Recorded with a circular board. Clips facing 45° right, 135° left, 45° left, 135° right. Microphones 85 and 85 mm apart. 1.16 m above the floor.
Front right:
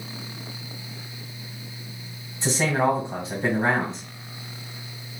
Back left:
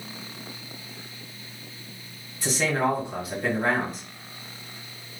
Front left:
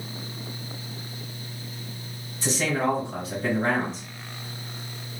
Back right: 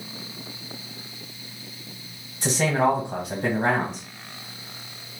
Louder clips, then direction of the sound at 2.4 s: Front right 2 dB, back right 4 dB; 110° right.